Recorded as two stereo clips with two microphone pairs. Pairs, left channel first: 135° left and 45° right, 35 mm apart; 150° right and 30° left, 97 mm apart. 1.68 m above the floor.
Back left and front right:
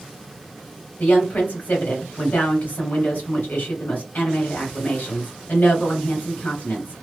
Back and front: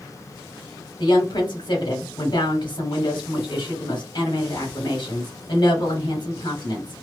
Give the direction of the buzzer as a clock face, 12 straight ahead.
No buzzer in this recording.